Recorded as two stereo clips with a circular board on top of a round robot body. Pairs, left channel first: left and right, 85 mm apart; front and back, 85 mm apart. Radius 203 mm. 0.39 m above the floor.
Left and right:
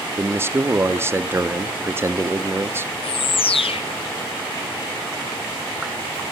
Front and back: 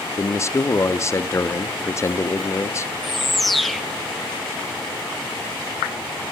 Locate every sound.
0.2 s a man speaking: 40° right, 1.4 m
3.0 s a bird: 90° left, 0.9 m